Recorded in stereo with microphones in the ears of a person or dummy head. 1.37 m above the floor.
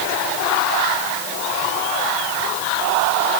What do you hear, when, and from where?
Only background noise.